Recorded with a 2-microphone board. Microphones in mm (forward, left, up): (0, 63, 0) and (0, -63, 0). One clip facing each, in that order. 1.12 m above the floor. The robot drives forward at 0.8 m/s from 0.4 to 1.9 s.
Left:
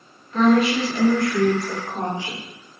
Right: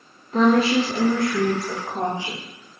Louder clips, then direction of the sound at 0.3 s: Even; 35° right (ahead or behind).